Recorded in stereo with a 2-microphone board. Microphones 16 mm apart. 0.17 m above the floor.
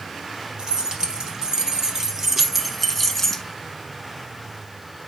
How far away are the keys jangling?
About 3 m.